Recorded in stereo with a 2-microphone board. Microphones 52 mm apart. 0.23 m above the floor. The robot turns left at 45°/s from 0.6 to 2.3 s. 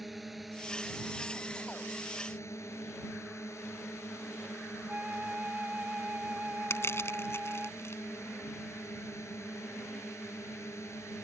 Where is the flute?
25° right (ahead or behind).